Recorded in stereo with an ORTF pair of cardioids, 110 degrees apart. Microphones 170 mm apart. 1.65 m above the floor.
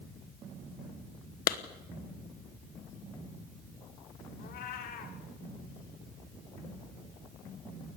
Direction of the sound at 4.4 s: 70° left.